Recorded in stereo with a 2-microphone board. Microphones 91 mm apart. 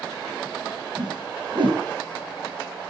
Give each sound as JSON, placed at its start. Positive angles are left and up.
{"t": 1.0, "sound": "a whoosh", "side_deg": -60, "distance_m": 6.5}